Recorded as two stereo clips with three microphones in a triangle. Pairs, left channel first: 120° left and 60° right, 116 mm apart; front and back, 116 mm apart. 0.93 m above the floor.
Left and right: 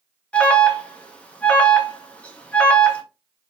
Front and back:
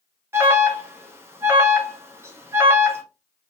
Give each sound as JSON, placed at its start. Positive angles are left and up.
{"t": 0.3, "sound": "an alarm", "azimuth_deg": 175, "distance_m": 0.8}